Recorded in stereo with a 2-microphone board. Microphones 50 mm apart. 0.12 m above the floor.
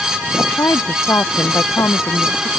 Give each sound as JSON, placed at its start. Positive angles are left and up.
{"t": 0.4, "sound": "a woman speaking", "side_deg": 80}